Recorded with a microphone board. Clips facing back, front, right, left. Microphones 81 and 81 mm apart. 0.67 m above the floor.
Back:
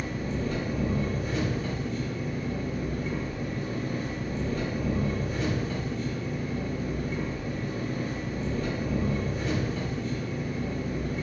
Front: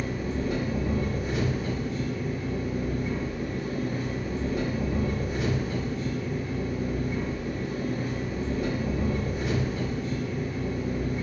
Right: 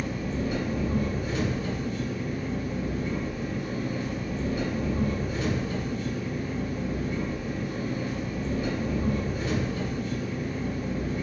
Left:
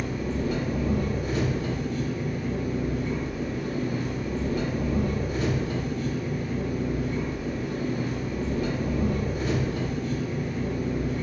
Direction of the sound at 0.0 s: 80° left.